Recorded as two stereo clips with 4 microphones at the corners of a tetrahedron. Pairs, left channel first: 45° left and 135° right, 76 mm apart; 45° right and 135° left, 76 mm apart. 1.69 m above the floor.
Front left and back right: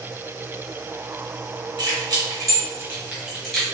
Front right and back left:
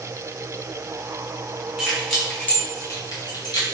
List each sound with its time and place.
1.8 s keys jangling: 150° right, 1.3 m; by 3.6 s 40° right, 1.4 m